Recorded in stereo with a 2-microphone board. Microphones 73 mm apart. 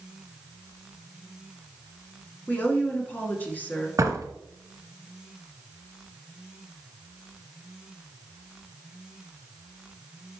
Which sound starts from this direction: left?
A woman speaking, at 2.5 s.